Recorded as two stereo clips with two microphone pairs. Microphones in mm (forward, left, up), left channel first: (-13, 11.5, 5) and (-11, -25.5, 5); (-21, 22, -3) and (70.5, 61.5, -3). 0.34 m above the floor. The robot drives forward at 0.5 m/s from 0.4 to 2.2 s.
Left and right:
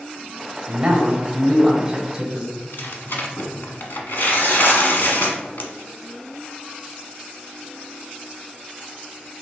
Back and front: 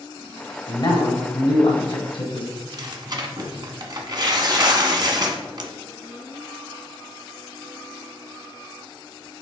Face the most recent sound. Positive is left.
turn(degrees=70)